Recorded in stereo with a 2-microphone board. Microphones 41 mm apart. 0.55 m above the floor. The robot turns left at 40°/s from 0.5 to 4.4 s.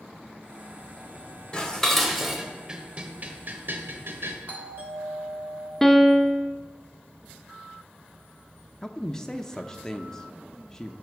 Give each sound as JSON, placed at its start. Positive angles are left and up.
{"t": 1.5, "sound": "dishes clattering", "side_deg": 25, "distance_m": 1.5}
{"t": 4.5, "sound": "a doorbell", "side_deg": -45, "distance_m": 3.0}
{"t": 5.8, "sound": "a piano", "side_deg": 5, "distance_m": 0.6}
{"t": 8.8, "sound": "a man speaking", "side_deg": 15, "distance_m": 0.7}